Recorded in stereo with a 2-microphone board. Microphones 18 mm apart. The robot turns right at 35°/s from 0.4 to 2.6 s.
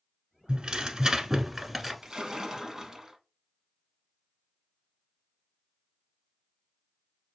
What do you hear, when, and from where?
0.5 s tearing paper: 55° right, 1.0 m; by 1.9 s 5° right, 1.0 m
2.0 s a splash: 45° right (ahead or behind), 0.6 m; by 3.2 s 30° right (ahead or behind), 0.6 m